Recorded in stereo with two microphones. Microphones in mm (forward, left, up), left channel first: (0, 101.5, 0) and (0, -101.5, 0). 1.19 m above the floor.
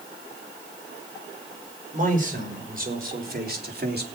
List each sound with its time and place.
1.9 s a man speaking: 40° right (ahead or behind), 5 m; by 4.0 s 50° right (ahead or behind), 3 m